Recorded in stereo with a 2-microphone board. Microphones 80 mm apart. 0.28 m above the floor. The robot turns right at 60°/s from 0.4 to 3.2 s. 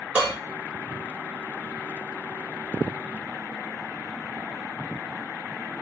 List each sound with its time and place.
0.1 s dishes clattering: 15° right (ahead or behind), 2.5 m